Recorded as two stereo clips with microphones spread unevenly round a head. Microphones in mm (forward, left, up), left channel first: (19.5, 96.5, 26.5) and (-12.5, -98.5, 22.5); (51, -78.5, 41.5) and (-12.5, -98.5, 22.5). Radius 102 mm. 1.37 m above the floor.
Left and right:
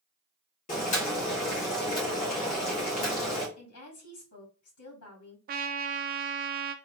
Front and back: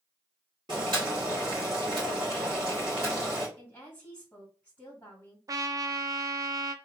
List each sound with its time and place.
0.7 s boiling: 135° left, 1.9 m
3.6 s a woman speaking: 90° left, 2.5 m
5.5 s a trumpet: 145° right, 0.6 m